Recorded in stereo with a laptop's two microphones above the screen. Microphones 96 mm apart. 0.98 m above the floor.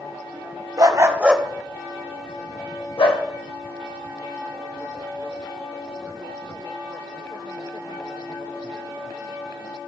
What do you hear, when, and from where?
0.8 s a dog barking: 45° right (ahead or behind), 0.7 m; by 3.2 s 70° left (ahead or behind), 1.6 m